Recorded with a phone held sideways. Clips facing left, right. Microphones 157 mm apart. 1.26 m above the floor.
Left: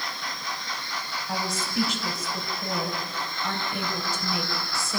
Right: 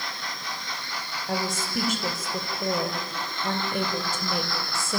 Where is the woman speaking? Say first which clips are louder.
Right 2 dB; 50° right (ahead or behind), 5.5 m.